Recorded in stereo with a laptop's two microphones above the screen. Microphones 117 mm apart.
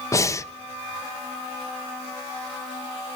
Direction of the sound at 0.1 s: 25° left (ahead or behind).